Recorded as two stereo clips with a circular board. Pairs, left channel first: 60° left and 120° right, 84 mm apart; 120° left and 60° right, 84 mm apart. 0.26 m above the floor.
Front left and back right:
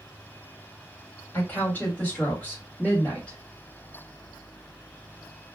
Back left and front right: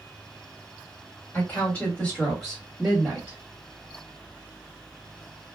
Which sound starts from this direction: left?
A woman speaking, at 1.3 s.